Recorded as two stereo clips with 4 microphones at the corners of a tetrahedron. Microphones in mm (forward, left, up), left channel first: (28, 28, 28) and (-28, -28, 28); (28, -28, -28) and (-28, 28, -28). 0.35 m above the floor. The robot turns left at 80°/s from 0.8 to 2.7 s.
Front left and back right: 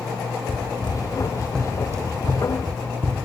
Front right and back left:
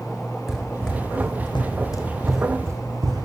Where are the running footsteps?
50° left, 1.7 m; by 3.3 s 165° left, 1.3 m.